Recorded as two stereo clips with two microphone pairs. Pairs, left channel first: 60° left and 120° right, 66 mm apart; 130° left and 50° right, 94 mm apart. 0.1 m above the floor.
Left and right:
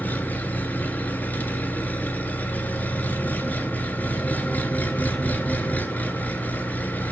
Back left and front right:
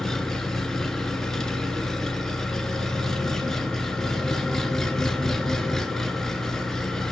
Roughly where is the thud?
No thud in this recording.